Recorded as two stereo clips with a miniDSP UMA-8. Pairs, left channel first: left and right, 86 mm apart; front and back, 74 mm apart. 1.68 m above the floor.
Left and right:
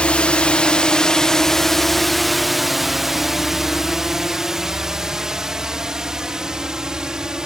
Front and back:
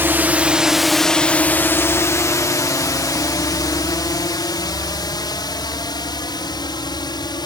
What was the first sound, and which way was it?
A drone, 155° left.